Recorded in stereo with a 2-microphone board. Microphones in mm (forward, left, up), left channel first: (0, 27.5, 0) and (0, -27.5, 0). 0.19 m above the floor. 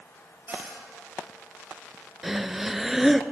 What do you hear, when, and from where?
0.5 s a cupboard door: 40° right (ahead or behind), 4 m
2.2 s breathing: 5° right (ahead or behind), 0.5 m